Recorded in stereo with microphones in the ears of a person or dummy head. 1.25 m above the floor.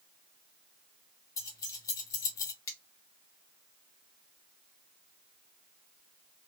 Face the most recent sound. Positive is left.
turn(degrees=15)  # may be behind; listen again after turning